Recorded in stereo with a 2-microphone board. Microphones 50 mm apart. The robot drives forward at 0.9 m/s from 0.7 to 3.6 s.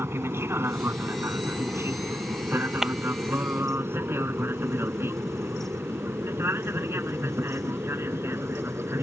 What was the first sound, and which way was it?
An aircraft, 50° right (ahead or behind).